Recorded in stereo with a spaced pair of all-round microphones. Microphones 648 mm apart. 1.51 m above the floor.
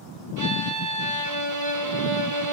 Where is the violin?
30° right (ahead or behind), 0.5 m.